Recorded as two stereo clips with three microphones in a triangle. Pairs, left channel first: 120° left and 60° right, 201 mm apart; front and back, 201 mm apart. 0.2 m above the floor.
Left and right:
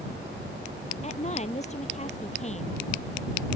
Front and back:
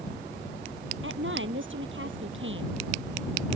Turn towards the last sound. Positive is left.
turn(degrees=175)